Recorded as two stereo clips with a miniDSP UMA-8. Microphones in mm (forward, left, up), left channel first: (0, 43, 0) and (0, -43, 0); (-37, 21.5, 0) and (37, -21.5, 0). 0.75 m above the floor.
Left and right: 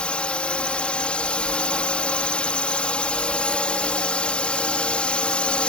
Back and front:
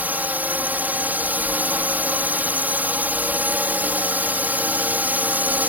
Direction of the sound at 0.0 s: 25° left.